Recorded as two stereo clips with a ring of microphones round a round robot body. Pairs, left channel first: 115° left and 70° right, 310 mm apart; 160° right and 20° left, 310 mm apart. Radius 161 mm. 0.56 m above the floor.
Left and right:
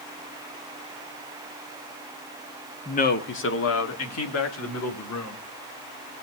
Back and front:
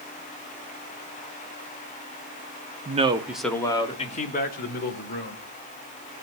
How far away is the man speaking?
About 1.1 m.